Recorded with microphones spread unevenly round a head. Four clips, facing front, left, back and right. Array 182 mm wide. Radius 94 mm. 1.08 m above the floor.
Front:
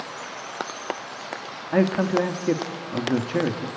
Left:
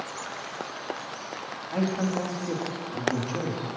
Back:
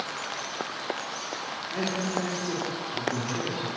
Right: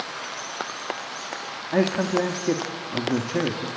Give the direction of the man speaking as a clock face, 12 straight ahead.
1 o'clock.